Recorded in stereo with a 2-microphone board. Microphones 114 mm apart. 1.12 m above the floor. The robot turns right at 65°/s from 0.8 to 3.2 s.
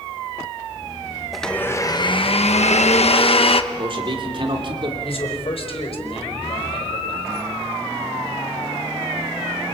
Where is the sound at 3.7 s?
45° right (ahead or behind), 3 m.